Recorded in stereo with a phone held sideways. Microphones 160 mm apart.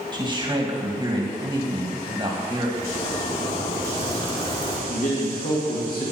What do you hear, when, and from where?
0.1 s a man speaking: 30° right (ahead or behind), 1.6 m
2.8 s a zipper: 35° left (ahead or behind), 1.9 m
4.9 s a man speaking: 60° left (ahead or behind), 2 m